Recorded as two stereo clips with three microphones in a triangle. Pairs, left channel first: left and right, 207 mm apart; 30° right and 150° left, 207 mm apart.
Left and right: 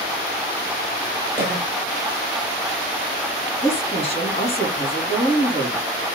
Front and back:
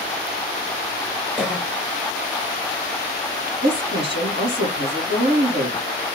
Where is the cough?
130° right, 1.2 m.